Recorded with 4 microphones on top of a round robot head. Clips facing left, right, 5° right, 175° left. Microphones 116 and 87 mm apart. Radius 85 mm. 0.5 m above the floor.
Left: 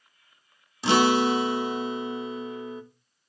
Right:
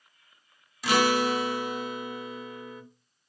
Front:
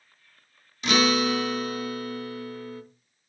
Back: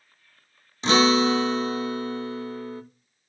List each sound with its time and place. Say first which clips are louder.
0.8 s a guitar: left 3 dB, back 4 dB; 135° left, 0.6 m